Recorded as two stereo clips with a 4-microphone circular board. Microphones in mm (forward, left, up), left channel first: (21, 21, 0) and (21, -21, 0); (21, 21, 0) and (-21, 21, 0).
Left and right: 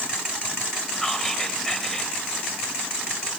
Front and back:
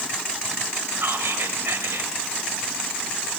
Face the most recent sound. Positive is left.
turn(degrees=170)